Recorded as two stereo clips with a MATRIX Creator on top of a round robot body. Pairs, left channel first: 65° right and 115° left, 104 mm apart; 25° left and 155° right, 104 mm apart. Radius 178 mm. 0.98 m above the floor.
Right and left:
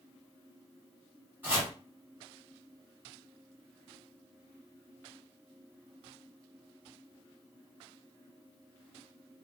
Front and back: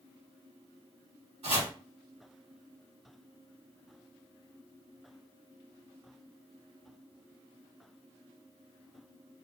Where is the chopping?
175° right, 1.8 m.